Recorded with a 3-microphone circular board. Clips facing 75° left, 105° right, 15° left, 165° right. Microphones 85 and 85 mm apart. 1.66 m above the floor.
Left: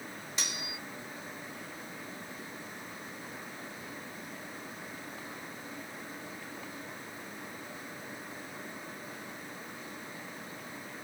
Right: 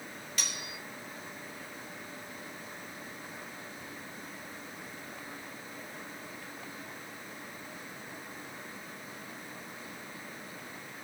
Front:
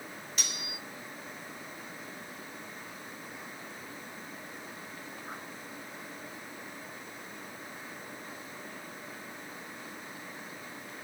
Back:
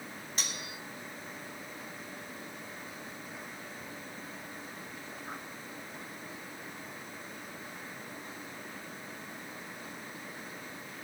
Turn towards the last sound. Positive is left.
turn(degrees=140)